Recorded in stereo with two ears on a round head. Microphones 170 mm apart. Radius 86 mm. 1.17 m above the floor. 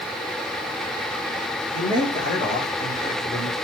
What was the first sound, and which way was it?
A man speaking, 40° left (ahead or behind).